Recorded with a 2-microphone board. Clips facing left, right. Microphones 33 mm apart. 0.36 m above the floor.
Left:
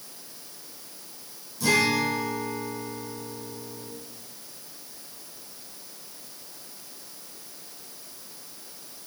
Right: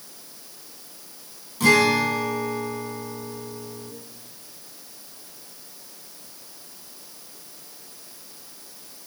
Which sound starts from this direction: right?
A guitar, at 1.6 s.